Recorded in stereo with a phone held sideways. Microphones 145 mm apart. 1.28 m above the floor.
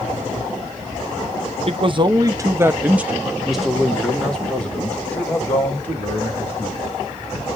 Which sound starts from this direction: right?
A man speaking, at 1.7 s.